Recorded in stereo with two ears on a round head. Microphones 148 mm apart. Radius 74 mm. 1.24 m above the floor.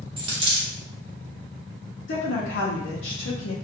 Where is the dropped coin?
30° right (ahead or behind), 0.8 m.